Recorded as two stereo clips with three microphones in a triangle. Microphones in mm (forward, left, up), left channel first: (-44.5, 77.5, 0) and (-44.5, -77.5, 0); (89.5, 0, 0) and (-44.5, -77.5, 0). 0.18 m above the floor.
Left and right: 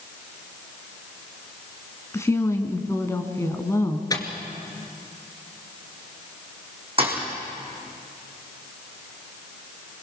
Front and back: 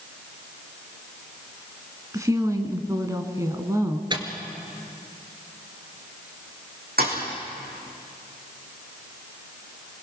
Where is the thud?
140° right, 4 m.